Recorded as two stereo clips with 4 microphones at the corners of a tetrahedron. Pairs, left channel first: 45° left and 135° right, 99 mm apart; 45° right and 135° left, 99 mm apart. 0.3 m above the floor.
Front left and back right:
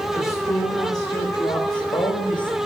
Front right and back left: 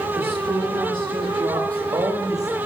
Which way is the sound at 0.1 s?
105° left.